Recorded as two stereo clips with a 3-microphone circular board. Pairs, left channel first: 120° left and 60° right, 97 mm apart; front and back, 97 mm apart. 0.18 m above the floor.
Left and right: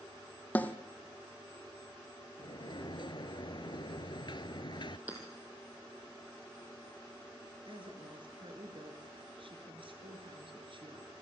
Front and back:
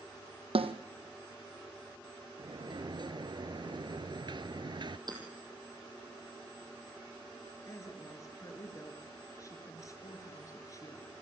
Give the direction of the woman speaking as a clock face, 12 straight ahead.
2 o'clock.